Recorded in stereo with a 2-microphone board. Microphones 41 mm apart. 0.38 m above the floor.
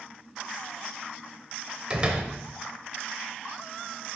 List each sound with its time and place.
1.9 s a door slam: 25° right (ahead or behind), 0.8 m